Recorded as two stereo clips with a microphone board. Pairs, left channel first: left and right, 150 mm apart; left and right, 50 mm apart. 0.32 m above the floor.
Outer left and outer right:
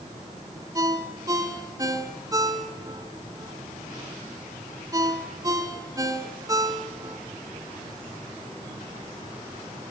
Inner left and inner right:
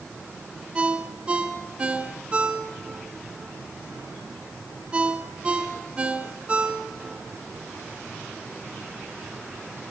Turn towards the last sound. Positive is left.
turn(degrees=-25)  # may be behind; listen again after turning